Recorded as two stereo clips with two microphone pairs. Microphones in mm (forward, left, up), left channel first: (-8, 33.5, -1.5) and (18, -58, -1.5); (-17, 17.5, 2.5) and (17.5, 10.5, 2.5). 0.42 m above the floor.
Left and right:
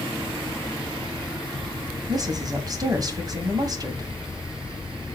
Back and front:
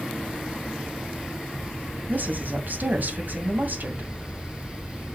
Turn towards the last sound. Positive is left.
turn(degrees=-30)